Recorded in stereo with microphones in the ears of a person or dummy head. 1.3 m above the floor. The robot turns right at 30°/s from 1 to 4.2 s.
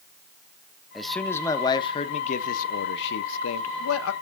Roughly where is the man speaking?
Ahead.